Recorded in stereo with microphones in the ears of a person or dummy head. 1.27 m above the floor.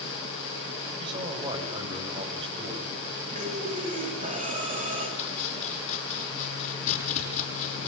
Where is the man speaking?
30° right (ahead or behind), 7 m.